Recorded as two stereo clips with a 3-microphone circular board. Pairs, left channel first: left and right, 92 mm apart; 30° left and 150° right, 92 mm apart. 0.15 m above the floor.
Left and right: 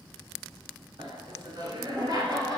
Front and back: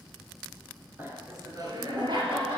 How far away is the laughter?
About 1.9 m.